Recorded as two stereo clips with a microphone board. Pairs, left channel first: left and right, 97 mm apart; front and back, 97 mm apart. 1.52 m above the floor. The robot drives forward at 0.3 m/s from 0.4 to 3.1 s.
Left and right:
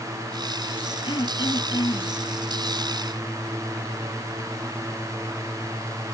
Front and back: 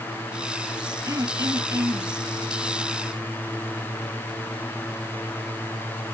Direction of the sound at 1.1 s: 125° left.